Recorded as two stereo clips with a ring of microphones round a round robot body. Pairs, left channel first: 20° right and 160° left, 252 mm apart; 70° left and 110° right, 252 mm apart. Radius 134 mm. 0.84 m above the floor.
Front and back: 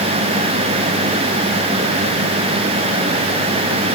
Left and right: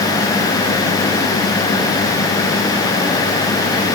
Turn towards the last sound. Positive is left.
No sound to turn to.